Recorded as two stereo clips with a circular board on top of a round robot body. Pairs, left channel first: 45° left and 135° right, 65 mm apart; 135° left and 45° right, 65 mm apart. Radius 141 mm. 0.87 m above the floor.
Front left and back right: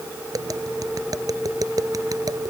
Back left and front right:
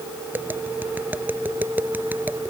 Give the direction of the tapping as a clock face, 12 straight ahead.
4 o'clock.